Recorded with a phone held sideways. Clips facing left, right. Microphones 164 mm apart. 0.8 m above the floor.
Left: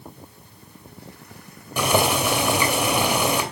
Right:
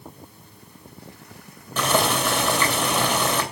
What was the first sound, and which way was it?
Boiling, 10° left (ahead or behind).